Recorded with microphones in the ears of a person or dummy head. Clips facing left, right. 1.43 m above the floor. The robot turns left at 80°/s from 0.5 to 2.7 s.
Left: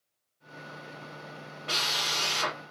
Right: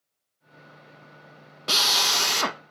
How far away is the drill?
About 0.7 m.